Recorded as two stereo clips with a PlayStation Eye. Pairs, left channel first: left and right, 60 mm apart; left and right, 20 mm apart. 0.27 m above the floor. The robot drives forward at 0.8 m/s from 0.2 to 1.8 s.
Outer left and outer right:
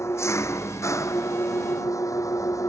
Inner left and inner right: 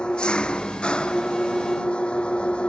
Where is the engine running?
50° left (ahead or behind); by 2.7 s 60° left (ahead or behind).